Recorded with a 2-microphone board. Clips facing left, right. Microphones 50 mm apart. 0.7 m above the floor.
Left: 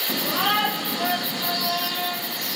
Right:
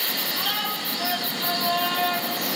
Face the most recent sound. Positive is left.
turn(degrees=-40)  # may be behind; listen again after turning